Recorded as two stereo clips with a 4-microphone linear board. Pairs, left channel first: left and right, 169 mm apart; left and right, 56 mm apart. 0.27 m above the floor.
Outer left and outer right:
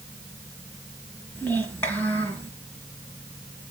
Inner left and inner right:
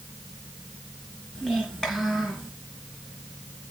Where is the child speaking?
10° left (ahead or behind), 2 m.